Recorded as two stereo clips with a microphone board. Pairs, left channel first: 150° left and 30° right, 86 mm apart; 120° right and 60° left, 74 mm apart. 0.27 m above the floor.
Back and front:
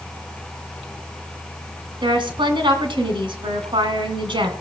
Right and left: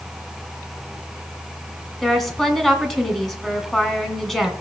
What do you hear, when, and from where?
2.0 s a woman speaking: 35° right, 2 m